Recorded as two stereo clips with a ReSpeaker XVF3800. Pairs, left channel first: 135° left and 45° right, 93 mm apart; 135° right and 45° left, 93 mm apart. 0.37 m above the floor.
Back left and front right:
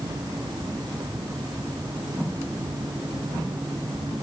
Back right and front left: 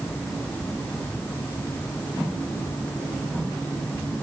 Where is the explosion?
I don't hear an explosion.